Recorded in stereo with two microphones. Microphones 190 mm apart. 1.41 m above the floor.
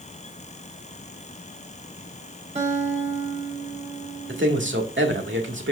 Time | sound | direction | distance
2.5 | a guitar | 35° right (ahead or behind) | 2 m
4.3 | a man speaking | 85° right | 1.9 m